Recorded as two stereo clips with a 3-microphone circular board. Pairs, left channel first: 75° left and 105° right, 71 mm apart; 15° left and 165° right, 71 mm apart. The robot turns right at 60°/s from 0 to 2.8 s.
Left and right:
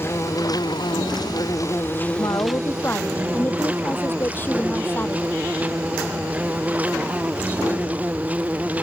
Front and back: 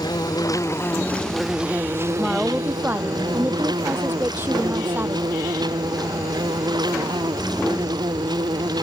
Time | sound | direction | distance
0.0 | an insect | 20° left | ?
2.2 | a woman speaking | 100° left | ?